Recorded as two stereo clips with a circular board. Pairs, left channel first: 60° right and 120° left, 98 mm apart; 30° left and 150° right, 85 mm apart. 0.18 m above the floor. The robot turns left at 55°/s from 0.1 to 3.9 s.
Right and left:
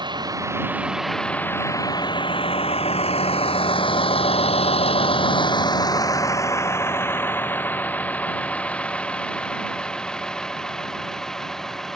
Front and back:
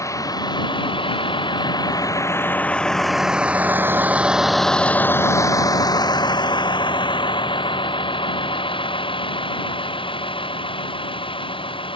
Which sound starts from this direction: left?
A vehicle, at 0.0 s.